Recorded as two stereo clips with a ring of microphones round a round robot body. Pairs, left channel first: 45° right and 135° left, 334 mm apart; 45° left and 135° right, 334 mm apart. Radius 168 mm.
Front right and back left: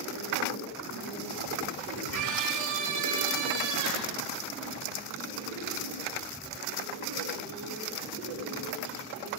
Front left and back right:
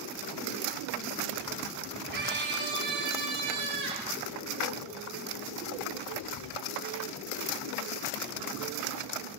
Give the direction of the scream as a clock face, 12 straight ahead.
6 o'clock.